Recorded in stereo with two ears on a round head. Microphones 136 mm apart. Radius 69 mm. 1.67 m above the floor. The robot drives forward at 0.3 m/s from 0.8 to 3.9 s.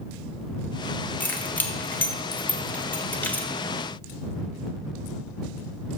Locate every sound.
1.2 s keys jangling: 10° left (ahead or behind), 1.0 m